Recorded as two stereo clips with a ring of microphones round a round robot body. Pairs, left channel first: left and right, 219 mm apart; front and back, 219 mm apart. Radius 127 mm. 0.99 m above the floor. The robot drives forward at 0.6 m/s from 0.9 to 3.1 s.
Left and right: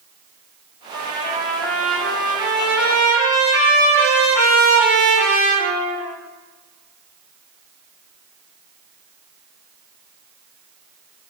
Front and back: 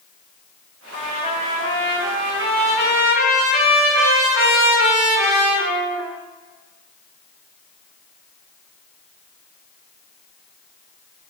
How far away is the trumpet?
About 1.2 m.